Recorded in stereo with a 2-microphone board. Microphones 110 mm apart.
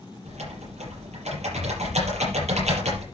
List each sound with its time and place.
0.2 s typing on a keyboard: 80° right, 6.5 m